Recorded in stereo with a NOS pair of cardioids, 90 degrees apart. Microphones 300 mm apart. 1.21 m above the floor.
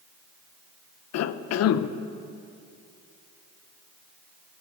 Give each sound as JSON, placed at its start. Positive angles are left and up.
{"t": 1.1, "sound": "a cough", "azimuth_deg": 55, "distance_m": 0.5}